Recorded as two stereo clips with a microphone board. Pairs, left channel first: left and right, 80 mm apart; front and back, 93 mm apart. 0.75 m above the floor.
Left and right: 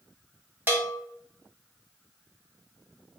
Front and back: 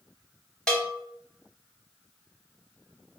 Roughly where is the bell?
Right.